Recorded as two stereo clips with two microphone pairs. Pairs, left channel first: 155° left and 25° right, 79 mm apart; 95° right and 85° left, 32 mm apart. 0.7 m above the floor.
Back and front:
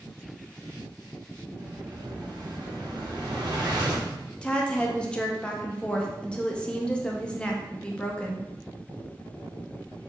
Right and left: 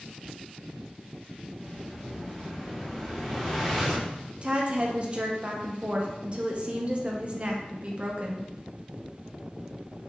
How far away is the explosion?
About 0.7 m.